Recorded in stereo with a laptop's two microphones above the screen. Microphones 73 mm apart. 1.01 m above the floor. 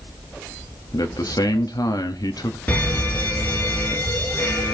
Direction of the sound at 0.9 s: 60° left (ahead or behind).